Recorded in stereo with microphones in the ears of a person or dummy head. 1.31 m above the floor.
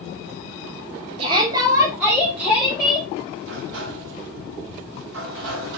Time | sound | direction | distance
1.2 | a shout | 35° right (ahead or behind) | 1.5 m
3.4 | a sliding door | 60° right (ahead or behind) | 1.2 m